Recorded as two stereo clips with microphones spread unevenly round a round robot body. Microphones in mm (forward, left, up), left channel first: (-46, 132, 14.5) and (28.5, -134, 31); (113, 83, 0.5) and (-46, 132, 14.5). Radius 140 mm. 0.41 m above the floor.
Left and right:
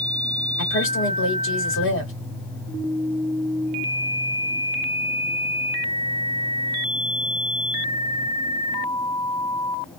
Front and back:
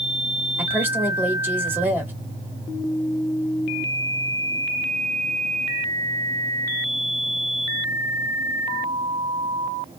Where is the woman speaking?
85° left, 1.9 m.